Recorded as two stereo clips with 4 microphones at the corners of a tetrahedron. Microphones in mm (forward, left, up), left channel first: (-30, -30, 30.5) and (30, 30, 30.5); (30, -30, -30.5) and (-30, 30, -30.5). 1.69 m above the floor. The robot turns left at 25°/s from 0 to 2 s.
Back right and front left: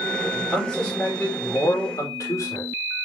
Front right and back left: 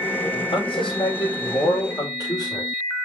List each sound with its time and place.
0.3 s a man speaking: 45° right, 5 m; by 2.7 s 90° right, 5 m